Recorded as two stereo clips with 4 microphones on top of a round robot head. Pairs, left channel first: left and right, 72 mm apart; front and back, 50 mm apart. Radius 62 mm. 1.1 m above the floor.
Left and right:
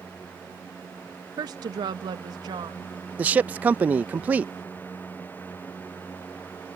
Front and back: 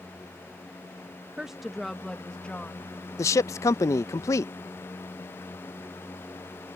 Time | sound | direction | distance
1.4 | a woman speaking | 100° right | ?
3.2 | a man speaking | 20° right | ?